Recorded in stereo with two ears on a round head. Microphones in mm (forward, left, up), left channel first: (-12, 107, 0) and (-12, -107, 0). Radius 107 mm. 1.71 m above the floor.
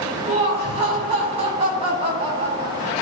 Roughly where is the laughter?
Right.